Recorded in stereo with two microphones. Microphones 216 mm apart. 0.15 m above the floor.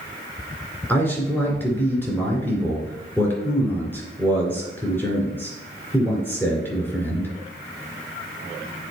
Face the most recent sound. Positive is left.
turn(degrees=10)  # may be behind; listen again after turning